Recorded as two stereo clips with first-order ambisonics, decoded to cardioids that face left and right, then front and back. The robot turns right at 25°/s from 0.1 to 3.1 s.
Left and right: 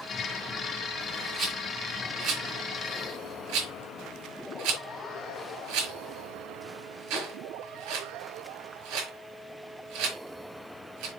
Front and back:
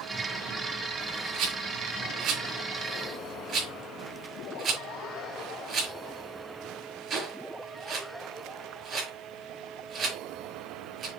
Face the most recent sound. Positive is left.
turn(degrees=-115)